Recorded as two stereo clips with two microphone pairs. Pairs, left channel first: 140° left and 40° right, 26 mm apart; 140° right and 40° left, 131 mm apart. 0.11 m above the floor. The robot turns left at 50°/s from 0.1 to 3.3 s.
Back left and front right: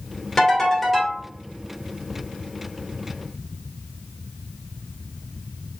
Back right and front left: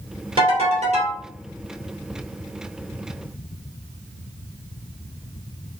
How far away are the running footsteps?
No running footsteps in this recording.